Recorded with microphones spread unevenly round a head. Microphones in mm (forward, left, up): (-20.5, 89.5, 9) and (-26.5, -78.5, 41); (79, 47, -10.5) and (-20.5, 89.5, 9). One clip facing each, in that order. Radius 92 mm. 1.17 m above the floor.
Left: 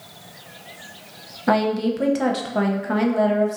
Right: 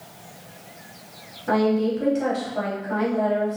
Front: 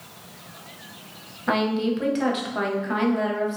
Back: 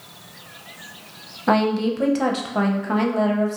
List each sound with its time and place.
1.5 s a woman speaking: 100° left, 0.6 m